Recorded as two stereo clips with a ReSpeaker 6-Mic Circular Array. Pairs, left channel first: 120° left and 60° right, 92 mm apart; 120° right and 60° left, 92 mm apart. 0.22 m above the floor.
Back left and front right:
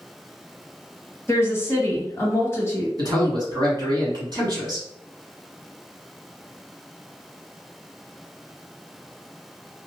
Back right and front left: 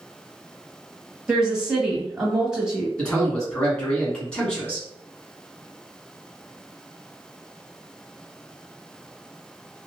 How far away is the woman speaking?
About 1.0 m.